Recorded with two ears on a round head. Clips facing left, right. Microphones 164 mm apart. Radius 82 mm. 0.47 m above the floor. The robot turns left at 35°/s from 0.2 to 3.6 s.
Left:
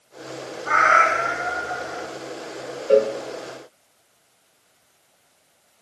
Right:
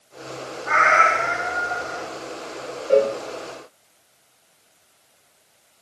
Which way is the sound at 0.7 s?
55° left.